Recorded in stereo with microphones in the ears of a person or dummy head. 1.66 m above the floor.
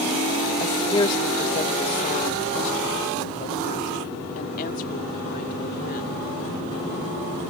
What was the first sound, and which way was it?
A woman speaking, 20° left (ahead or behind).